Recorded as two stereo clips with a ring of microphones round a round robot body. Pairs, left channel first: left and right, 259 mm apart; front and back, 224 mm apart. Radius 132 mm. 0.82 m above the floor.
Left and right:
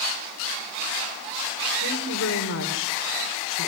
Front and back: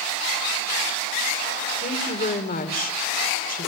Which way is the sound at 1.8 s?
50° left.